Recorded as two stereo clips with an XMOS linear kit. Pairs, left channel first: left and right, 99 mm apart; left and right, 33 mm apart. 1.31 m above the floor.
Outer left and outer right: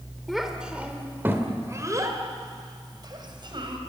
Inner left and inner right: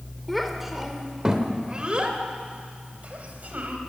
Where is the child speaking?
Centre (ahead or behind), 2.5 m; by 3.8 s 55° right (ahead or behind), 4.5 m.